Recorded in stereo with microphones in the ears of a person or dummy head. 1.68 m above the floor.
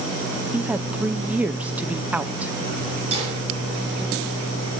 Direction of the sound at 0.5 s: 10° right (ahead or behind).